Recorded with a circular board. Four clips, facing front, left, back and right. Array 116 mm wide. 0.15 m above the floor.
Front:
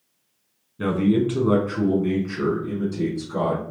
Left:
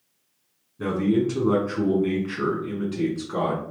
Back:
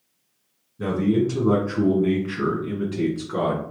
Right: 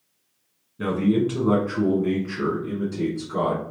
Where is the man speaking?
30° right, 1.4 m; by 3.6 s 145° left, 1.6 m.